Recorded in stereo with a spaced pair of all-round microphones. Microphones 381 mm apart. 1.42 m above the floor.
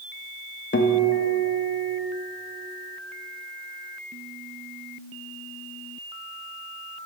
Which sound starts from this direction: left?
A guitar, at 0.7 s.